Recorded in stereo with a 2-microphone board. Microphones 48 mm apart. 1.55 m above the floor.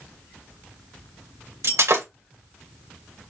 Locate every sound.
1.6 s breaking glass: 70° right (ahead or behind), 3 m